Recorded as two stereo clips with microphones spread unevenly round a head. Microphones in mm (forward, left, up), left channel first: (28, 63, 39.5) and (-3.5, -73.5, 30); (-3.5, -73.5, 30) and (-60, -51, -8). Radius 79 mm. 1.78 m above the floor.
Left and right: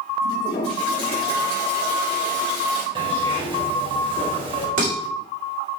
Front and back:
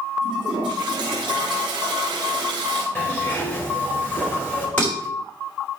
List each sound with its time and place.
0.2 s a toilet flushing: 130° left, 3.5 m
3.0 s a zipper: 50° right, 3 m
4.8 s dishes clattering: 75° right, 4 m